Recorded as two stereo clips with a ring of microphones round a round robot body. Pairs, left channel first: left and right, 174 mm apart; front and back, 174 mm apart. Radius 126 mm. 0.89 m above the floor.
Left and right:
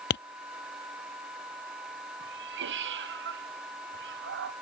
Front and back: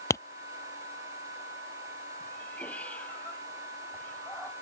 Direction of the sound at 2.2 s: 85° right.